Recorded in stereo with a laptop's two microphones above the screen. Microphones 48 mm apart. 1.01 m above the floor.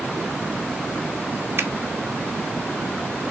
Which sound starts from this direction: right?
A finger snap, at 1.6 s.